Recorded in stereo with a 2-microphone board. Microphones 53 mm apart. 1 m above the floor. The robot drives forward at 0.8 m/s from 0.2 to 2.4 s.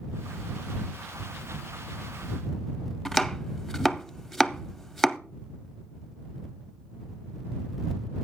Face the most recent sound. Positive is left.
turn(degrees=5)  # may be behind; listen again after turning